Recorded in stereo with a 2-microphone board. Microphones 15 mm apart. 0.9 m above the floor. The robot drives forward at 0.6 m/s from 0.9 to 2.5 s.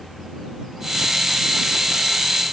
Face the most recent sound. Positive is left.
No sound to turn to.